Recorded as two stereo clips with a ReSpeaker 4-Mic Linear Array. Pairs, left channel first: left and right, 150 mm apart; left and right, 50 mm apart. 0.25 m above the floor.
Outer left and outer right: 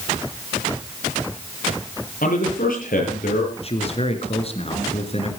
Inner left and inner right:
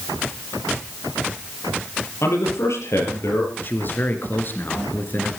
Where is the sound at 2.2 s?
75° left (ahead or behind), 6.5 m.